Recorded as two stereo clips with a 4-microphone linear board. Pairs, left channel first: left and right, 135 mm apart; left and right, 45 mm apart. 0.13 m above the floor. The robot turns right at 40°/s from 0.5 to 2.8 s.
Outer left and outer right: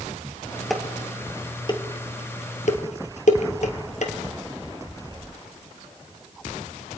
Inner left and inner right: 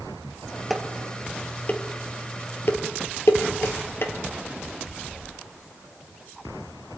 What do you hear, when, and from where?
0.7 s dishes clattering: centre (ahead or behind), 2 m; by 4.1 s 65° left (ahead or behind), 2 m